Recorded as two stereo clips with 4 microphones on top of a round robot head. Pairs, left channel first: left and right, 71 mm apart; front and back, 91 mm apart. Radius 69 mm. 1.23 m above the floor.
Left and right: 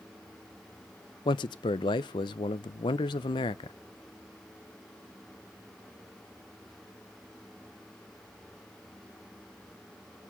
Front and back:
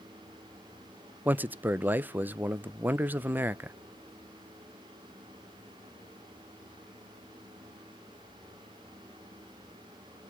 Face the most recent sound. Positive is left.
turn(degrees=110)